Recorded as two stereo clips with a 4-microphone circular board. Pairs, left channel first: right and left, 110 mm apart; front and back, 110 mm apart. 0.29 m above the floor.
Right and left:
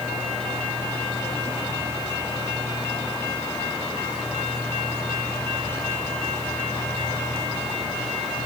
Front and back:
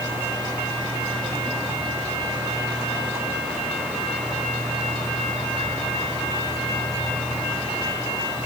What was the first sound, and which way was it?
Only background noise.